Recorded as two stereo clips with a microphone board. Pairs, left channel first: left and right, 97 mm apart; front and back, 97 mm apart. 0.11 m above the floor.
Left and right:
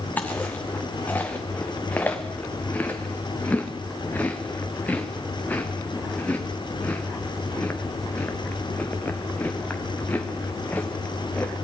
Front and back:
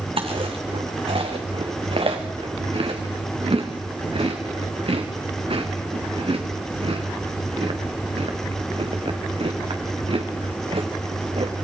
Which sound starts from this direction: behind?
Chewing, at 0.2 s.